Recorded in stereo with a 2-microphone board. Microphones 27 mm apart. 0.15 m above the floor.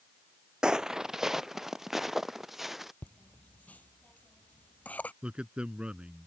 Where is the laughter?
60° left (ahead or behind).